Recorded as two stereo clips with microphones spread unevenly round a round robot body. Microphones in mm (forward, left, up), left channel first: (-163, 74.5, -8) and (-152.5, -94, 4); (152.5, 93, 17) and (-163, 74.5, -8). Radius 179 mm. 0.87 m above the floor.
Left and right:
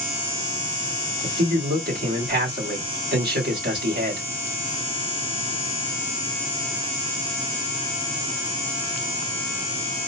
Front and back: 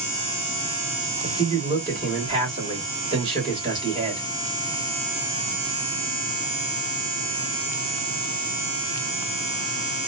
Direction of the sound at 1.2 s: 105° right.